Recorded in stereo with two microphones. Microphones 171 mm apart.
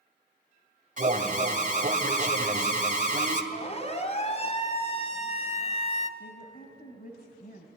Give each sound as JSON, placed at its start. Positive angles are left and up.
{"t": 1.0, "sound": "an alarm", "side_deg": -50, "distance_m": 2.0}
{"t": 3.5, "sound": "a siren", "side_deg": 40, "distance_m": 3.0}
{"t": 6.2, "sound": "a woman speaking", "side_deg": 60, "distance_m": 2.5}